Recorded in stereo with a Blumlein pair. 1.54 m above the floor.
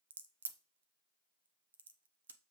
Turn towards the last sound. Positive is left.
turn(degrees=-70)